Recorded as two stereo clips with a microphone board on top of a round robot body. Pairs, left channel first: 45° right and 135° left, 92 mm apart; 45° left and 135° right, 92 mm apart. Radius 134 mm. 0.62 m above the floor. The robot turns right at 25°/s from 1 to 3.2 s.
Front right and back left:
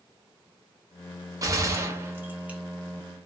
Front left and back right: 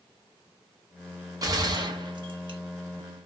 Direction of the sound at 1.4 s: Straight behind.